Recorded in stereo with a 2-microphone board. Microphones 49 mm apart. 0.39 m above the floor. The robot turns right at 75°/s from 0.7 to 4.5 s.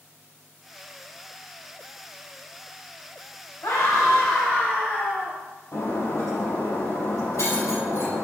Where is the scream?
65° left, 3 m; by 5.4 s 130° left, 3 m.